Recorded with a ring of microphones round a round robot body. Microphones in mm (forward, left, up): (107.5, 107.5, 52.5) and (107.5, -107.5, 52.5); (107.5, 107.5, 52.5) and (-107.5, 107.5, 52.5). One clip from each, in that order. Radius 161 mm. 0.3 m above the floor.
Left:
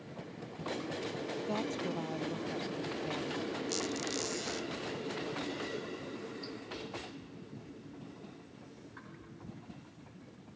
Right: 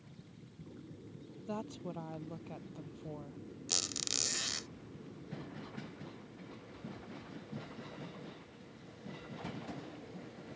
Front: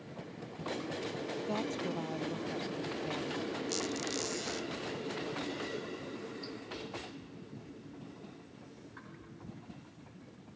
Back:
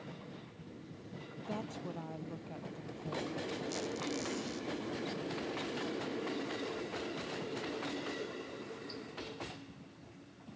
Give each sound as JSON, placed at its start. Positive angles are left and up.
{"t": 1.4, "sound": "a woman speaking", "azimuth_deg": 45}
{"t": 3.7, "sound": "a squeak", "azimuth_deg": -65}